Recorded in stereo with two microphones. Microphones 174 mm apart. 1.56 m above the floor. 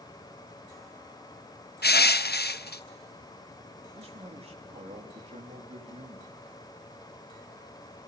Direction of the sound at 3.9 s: 35° right (ahead or behind).